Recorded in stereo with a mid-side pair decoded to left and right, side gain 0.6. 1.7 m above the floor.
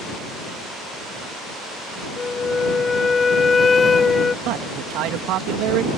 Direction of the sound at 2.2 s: 25° left.